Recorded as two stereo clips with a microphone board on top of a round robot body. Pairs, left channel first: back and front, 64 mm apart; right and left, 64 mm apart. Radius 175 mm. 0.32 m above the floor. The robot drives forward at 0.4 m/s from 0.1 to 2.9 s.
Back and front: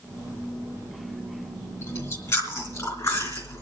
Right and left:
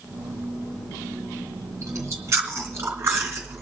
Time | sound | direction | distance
1.8 | chewing | 135° left | 2 m